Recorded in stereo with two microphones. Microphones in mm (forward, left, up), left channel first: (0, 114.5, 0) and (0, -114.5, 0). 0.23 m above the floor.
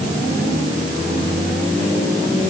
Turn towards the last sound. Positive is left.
No sound to turn to.